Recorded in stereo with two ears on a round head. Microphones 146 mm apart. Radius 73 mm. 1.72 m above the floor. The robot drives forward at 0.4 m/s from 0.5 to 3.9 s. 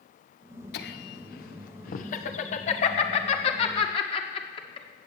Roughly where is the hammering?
I don't hear hammering.